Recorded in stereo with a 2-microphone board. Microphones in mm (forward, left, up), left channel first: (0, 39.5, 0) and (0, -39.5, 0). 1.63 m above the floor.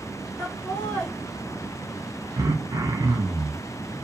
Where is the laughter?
10° left (ahead or behind), 0.9 m.